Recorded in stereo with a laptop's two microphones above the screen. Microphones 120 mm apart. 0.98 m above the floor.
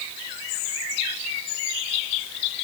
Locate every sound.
Only background noise.